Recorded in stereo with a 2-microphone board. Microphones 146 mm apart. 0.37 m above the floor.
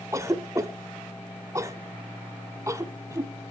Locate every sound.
0.1 s a cough: 20° right (ahead or behind), 1.0 m